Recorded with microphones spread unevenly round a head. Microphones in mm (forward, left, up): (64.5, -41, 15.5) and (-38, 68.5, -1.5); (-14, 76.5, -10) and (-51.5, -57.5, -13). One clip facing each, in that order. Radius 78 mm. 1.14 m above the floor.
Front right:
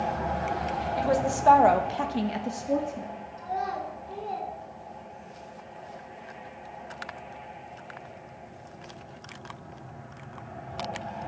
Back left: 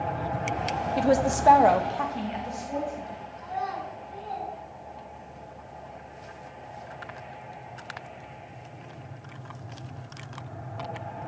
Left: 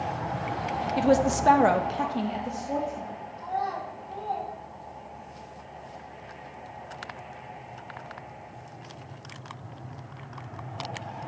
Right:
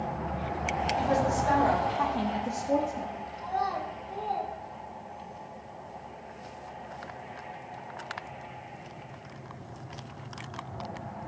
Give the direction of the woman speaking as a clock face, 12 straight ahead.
9 o'clock.